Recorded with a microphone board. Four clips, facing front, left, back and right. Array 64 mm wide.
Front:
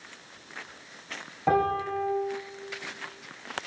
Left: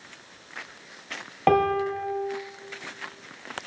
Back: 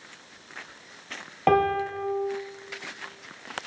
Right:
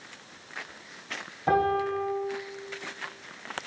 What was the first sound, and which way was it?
A piano, 130° left.